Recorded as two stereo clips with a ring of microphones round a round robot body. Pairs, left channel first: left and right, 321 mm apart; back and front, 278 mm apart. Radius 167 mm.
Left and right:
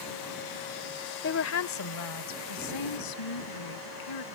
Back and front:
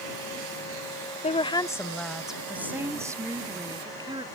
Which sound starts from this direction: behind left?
A woman speaking, at 1.2 s.